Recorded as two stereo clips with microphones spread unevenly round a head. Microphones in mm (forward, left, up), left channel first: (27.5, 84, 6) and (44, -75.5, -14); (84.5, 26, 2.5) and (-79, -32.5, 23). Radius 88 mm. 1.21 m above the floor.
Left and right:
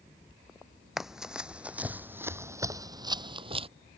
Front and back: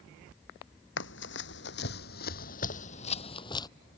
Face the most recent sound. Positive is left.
turn(degrees=-45)